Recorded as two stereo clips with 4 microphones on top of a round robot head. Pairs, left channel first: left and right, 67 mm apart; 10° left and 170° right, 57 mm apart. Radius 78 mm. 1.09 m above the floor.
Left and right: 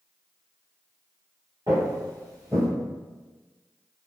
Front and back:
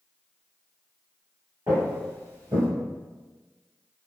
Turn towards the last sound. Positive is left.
turn(degrees=-175)